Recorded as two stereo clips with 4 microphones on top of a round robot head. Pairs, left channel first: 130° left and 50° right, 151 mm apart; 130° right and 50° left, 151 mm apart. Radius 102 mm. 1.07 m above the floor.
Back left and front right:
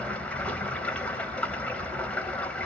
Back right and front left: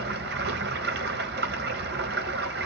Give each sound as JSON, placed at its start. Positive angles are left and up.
{"t": 0.0, "sound": "running water", "azimuth_deg": 50, "distance_m": 1.6}